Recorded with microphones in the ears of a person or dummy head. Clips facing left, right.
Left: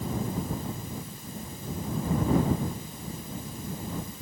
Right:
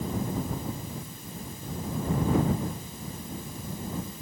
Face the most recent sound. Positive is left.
No sound to turn to.